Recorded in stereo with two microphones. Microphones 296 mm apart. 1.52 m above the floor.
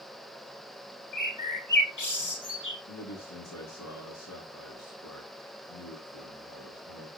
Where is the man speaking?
75° left (ahead or behind), 7 m.